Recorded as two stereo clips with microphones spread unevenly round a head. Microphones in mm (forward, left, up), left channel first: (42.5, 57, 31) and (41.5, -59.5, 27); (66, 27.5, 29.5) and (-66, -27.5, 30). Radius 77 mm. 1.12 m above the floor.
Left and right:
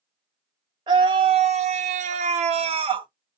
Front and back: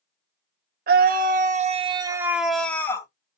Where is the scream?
145° right, 0.8 m; by 3.1 s 45° right, 0.8 m.